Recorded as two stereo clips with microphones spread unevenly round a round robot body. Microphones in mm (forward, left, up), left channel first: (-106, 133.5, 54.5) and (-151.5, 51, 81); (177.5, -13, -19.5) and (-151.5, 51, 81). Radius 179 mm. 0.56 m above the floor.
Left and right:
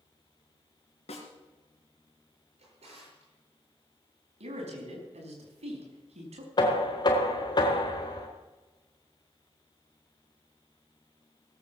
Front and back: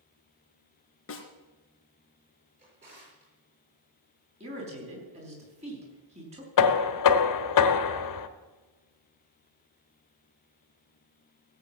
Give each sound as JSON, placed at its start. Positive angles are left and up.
{"t": 1.1, "sound": "a snare drum", "azimuth_deg": 45, "distance_m": 3.0}
{"t": 2.6, "sound": "a drawer", "azimuth_deg": -120, "distance_m": 6.5}
{"t": 4.4, "sound": "a man speaking", "azimuth_deg": -115, "distance_m": 4.5}
{"t": 6.6, "sound": "knocking", "azimuth_deg": 15, "distance_m": 1.2}